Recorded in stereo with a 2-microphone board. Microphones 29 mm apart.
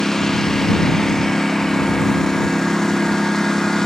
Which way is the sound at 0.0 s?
15° left (ahead or behind).